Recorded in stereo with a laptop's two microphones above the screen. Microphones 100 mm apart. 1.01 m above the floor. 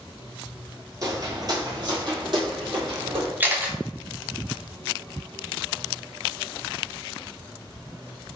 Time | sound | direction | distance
1.0 | footsteps | 35° right (ahead or behind) | 1.3 m
3.4 | a camera shutter | 20° right (ahead or behind) | 0.6 m